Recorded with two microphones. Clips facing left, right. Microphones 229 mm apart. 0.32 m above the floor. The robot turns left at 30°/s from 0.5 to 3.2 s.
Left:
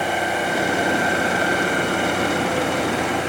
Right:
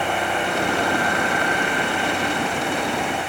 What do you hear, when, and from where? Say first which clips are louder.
0.0 s an engine running: left 1 dB; 175° left; by 3.3 s 90° left